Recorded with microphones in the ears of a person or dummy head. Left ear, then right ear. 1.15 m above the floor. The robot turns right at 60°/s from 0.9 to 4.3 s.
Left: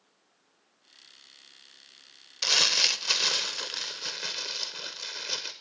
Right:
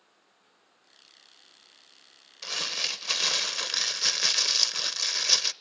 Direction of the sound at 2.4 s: 145° left.